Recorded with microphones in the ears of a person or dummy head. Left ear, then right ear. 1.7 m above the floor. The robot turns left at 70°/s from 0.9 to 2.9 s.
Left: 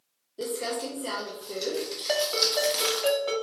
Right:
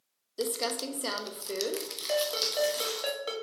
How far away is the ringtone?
About 1.1 m.